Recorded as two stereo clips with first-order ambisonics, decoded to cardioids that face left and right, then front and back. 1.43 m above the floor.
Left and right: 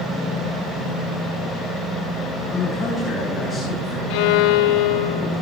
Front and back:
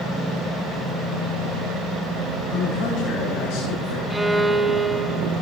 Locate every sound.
2.5 s a man speaking: 10° left, 5.5 m; by 4.0 s straight ahead, 6 m
4.1 s a violin: 95° left, 1.0 m